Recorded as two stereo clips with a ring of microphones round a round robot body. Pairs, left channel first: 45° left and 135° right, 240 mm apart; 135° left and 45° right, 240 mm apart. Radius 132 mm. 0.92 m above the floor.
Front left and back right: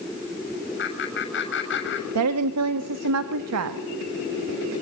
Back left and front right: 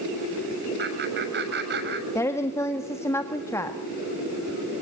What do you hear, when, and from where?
0.8 s laughter: straight ahead, 7 m
2.1 s a woman speaking: 145° right, 1.5 m